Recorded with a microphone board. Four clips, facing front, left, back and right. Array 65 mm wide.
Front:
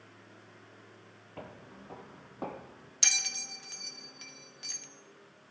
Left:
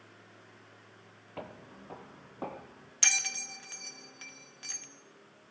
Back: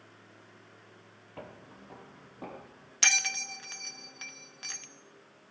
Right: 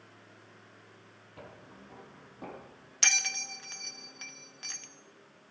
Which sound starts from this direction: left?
Footsteps, at 1.4 s.